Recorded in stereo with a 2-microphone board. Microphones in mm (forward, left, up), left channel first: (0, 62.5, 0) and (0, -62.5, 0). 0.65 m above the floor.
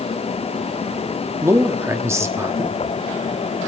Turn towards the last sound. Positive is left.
turn(degrees=-20)  # may be behind; listen again after turning